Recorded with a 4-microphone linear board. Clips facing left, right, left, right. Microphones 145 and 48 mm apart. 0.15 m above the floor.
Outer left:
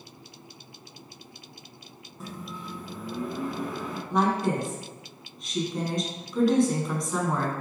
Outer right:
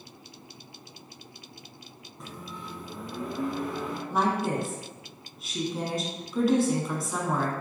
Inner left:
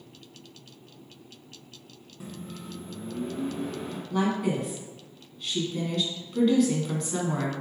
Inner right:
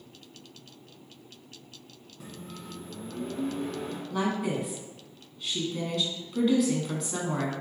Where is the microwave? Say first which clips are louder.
Outer left 3 dB, inner left 3 dB; 5° left (ahead or behind), 1.0 m.